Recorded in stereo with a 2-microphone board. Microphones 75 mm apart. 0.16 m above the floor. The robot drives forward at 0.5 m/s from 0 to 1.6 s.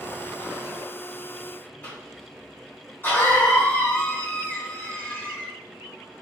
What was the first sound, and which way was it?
A cough, 30° left (ahead or behind).